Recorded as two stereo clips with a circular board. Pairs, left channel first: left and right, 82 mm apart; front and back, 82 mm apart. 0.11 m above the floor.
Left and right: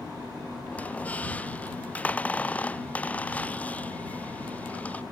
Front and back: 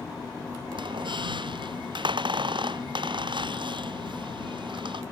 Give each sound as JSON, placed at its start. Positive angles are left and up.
{"t": 0.7, "sound": "a squeak", "azimuth_deg": 165}